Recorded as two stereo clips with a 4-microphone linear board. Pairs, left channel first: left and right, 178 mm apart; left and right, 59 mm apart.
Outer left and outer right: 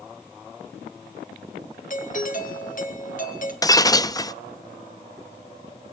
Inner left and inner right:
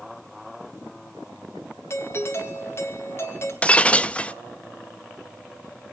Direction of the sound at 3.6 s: 20° left (ahead or behind).